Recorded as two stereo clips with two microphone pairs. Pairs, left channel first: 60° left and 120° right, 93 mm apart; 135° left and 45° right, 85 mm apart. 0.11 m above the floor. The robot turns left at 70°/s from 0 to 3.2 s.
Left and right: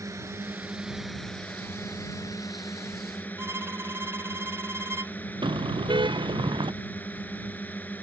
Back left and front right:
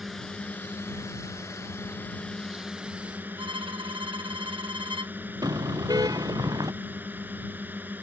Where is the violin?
55° right.